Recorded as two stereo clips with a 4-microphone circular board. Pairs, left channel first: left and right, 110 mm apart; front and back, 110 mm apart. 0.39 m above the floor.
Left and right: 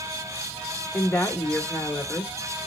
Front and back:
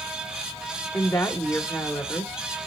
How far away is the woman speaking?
About 0.8 m.